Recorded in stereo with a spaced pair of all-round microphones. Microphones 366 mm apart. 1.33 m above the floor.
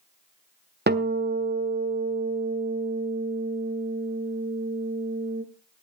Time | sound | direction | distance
0.9 | a guitar | 25° right (ahead or behind) | 1.1 m